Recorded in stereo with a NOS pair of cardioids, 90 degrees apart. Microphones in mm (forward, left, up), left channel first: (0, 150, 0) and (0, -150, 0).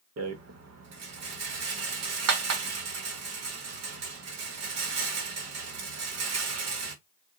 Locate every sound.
0.2 s a rattle: 60° right, 1.3 m